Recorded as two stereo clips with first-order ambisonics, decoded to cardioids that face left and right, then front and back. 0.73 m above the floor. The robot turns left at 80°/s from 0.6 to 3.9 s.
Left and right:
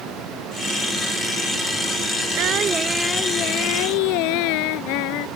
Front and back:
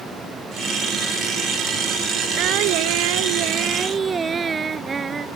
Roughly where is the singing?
Behind right.